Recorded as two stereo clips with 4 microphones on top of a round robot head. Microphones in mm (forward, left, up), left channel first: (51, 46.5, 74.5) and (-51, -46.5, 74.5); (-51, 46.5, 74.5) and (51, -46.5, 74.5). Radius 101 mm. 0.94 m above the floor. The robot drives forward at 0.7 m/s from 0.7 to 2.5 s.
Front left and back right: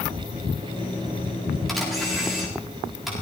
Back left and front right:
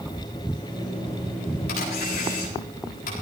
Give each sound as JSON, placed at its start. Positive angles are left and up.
{"t": 1.7, "sound": "a camera shutter", "azimuth_deg": 130, "distance_m": 7.0}